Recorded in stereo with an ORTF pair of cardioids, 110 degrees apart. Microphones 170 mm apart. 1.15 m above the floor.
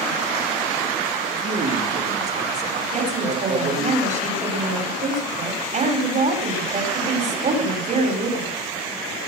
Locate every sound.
1.3 s a man speaking: 40° right, 3.5 m
2.9 s a woman speaking: 45° right, 4.5 m